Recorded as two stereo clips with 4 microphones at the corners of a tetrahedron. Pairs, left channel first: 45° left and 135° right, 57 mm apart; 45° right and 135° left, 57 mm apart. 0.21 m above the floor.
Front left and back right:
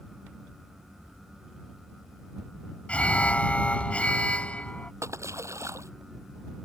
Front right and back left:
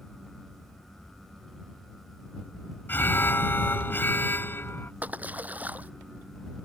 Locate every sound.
2.9 s an alarm: 15° right
5.0 s a splash: 165° right